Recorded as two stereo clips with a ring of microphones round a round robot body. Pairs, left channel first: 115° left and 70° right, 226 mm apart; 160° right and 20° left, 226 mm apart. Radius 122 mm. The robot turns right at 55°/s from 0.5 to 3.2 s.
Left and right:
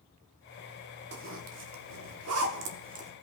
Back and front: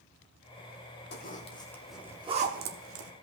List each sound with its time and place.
1.1 s a zipper: 110° right, 1.1 m; by 3.1 s straight ahead, 1.1 m